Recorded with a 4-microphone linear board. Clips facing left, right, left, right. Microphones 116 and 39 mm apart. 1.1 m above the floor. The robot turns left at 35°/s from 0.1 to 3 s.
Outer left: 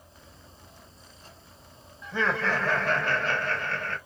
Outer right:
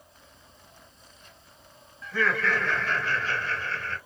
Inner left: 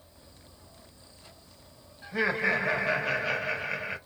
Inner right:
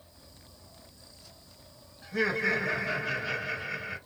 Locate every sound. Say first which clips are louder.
2.0 s laughter: even, inner left 1 dB; 160° left, 1.6 m; by 4.0 s 130° left, 1.6 m